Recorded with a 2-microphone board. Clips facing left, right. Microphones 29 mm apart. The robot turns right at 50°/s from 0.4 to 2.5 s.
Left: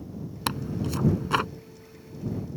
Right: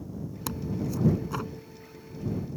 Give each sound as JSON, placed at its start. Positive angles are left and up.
{"t": 0.5, "sound": "tearing paper", "azimuth_deg": 60}